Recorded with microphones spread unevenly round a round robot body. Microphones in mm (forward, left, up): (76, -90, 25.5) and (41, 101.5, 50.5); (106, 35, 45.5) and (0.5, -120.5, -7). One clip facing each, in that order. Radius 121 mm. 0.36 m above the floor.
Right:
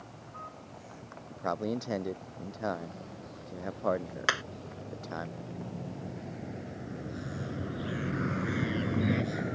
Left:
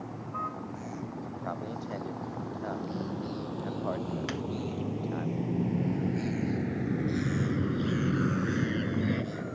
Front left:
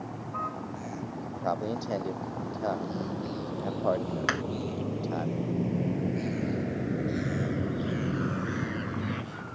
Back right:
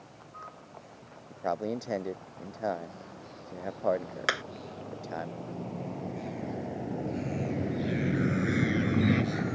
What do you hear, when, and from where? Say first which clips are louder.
0.0 s a vehicle: left 10 dB, front left 13 dB; 90° left; by 9.6 s 165° right
1.3 s a man speaking: right 4 dB, even; 45° right
4.3 s hammering: left 4 dB, front left 4 dB; 80° right